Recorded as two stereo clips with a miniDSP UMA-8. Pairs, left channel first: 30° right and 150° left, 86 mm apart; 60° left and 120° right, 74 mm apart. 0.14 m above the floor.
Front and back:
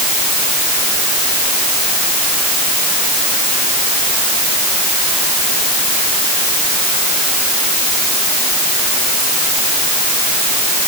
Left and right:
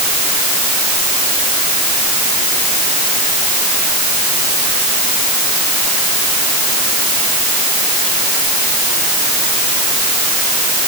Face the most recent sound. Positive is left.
No sound to turn to.